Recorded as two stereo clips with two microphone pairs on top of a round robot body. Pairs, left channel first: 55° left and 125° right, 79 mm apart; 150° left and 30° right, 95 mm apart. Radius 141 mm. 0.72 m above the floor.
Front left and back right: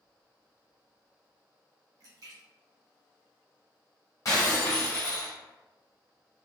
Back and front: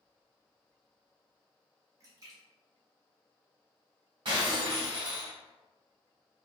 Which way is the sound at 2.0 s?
85° right.